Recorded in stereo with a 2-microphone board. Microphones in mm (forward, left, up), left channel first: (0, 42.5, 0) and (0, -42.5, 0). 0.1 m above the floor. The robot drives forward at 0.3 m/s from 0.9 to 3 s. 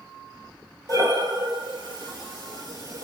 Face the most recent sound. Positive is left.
turn(degrees=-45)  # may be behind; listen again after turning